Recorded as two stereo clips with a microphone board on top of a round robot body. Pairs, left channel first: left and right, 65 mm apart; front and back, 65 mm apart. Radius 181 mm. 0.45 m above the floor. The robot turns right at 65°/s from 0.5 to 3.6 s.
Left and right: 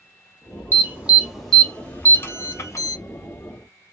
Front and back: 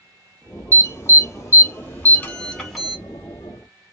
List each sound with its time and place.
0.7 s an alarm: 45° right, 1.4 m; by 3.0 s 100° left, 1.4 m